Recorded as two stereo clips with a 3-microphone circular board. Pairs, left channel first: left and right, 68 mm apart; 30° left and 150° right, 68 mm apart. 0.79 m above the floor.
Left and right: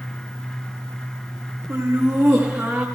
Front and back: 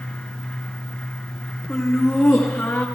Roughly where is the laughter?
Ahead right.